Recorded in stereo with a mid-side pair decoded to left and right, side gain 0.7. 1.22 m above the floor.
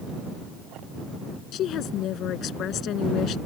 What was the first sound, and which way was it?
A woman speaking, 50° left.